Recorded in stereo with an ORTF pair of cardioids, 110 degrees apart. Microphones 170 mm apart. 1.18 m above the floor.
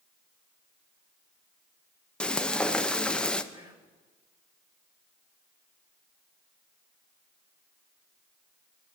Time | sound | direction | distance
2.2 | frying | 5° left | 0.7 m
3.5 | whispering | 30° right | 2.5 m